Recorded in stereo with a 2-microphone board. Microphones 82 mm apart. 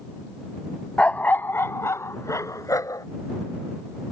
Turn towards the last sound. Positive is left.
turn(degrees=45)  # may be behind; listen again after turning